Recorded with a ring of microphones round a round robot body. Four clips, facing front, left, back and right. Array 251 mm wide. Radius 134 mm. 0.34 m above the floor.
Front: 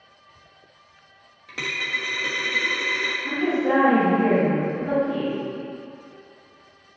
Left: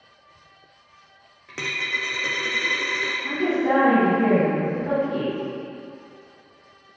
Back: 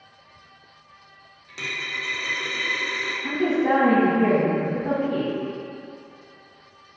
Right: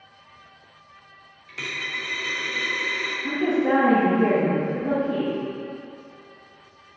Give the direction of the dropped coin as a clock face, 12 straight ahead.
10 o'clock.